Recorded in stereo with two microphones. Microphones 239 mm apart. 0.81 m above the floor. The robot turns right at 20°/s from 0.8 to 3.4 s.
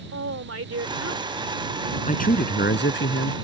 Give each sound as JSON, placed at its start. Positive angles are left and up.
{"t": 0.1, "sound": "a woman speaking", "side_deg": -80}
{"t": 2.1, "sound": "a man speaking", "side_deg": 30}